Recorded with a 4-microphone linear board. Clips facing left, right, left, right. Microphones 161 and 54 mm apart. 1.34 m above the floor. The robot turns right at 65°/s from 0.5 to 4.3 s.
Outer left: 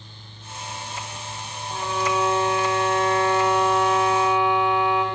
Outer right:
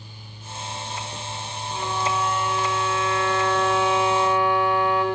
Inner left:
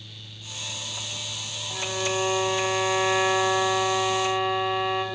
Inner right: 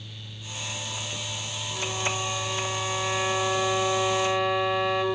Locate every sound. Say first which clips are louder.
1.7 s a violin: outer left 2 dB, inner left 3 dB; 50° left, 4 m; by 5.0 s 140° right, 4 m